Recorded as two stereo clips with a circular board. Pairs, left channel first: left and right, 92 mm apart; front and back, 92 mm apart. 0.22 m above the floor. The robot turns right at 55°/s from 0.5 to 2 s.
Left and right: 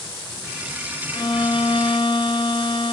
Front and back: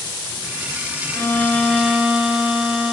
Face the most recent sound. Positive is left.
turn(degrees=105)